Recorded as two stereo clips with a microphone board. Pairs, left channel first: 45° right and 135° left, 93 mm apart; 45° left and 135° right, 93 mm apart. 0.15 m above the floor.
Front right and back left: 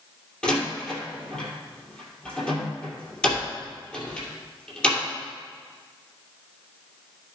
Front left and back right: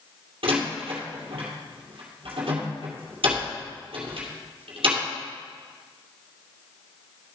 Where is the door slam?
125° right, 2 m.